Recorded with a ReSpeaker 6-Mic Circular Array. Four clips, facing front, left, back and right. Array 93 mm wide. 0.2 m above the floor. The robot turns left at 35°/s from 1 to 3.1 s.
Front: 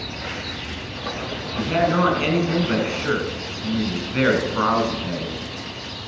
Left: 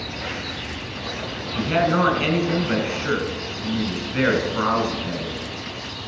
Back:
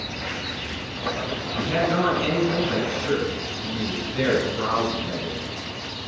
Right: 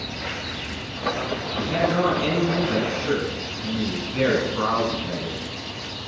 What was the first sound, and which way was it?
A man speaking, 80° left.